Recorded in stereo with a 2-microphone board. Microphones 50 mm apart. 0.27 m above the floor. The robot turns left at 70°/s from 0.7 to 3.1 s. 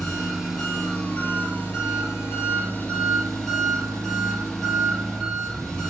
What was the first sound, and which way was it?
An engine running, 175° left.